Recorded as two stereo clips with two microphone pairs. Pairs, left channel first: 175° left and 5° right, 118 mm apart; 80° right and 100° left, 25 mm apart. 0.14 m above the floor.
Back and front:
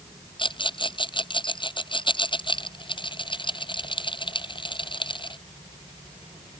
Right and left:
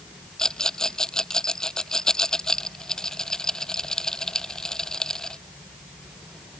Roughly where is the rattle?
Behind right.